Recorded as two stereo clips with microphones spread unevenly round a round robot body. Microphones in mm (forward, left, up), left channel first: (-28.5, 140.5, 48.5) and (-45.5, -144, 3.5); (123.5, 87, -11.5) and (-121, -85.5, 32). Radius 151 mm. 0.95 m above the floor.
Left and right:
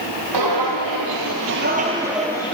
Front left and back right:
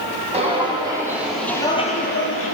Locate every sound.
0.3 s footsteps: 80° right, 2.0 m; by 2.5 s 45° left, 1.1 m